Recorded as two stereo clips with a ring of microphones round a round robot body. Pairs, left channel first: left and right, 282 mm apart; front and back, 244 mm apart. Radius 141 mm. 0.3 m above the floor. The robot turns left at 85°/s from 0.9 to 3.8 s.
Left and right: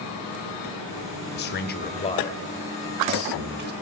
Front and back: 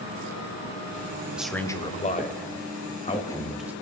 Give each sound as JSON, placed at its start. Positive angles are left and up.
{"t": 1.4, "sound": "a man speaking", "azimuth_deg": 100, "distance_m": 1.0}